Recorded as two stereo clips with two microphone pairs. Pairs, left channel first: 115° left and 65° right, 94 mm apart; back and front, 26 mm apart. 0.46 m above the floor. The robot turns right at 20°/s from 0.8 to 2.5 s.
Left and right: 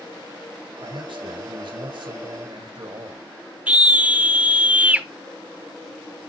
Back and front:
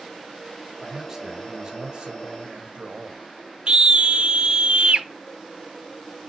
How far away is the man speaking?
About 2 m.